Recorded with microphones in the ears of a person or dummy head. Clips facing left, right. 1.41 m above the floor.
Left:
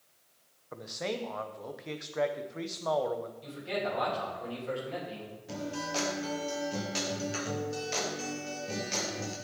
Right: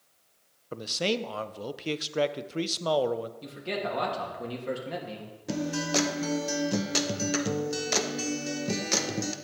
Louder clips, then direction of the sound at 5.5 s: Right 7 dB; 70° right (ahead or behind).